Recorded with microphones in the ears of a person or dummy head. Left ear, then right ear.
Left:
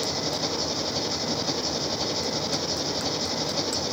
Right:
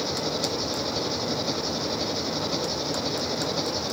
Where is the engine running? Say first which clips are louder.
Even; 15° left (ahead or behind).